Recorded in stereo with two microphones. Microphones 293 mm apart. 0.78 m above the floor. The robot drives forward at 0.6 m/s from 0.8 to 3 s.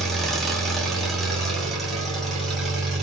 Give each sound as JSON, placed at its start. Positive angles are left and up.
{"t": 0.0, "sound": "an engine running", "side_deg": 0, "distance_m": 1.2}